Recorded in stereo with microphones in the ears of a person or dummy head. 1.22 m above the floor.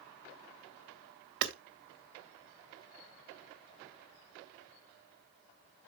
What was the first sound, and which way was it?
Hammering, 60° right (ahead or behind).